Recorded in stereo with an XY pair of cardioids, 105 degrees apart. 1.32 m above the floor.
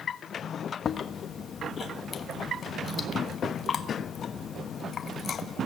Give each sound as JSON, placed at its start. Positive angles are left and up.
{"t": 0.8, "sound": "chewing", "azimuth_deg": 50, "distance_m": 1.2}